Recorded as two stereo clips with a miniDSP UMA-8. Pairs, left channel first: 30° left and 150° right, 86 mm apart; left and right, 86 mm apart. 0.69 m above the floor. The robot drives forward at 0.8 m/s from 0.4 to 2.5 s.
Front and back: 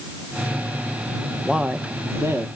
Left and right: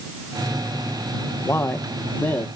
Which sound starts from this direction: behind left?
A man speaking, at 1.4 s.